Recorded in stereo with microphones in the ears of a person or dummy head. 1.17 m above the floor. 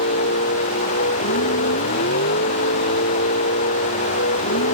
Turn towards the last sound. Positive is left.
turn(degrees=55)  # may be behind; listen again after turning